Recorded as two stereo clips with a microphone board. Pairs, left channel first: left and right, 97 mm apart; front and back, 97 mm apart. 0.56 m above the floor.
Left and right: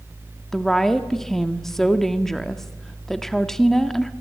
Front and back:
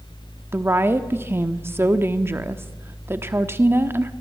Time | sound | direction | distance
0.5 | a woman speaking | 170° left | 1.2 m